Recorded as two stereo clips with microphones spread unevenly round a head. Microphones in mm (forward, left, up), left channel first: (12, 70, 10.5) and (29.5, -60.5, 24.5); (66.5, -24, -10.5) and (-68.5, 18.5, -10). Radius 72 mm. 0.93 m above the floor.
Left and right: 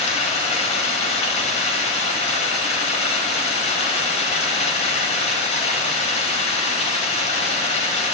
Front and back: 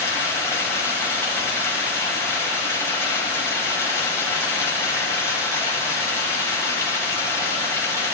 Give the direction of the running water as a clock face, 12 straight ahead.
10 o'clock.